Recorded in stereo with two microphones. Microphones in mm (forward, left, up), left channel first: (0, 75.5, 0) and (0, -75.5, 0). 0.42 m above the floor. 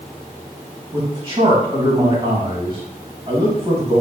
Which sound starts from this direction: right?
A man speaking, at 0.9 s.